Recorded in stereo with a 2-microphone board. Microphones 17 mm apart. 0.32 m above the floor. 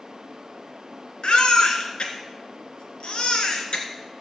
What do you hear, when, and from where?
1.2 s a baby crying: 75° left (ahead or behind), 1.9 m